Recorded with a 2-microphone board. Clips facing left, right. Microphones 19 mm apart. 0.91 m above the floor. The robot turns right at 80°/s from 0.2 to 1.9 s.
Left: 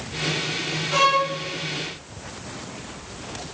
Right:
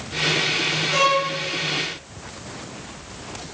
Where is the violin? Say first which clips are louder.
Left 2 dB; 175° right, 2.5 m; by 1.3 s 140° right, 2.5 m.